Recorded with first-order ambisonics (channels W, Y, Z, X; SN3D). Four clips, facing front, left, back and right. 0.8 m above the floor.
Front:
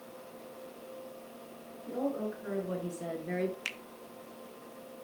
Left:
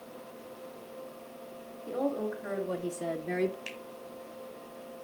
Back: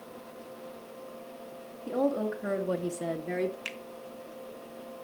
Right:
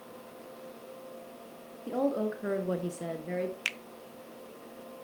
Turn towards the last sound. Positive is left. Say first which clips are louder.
# right 8 dB, even
turn(degrees=-85)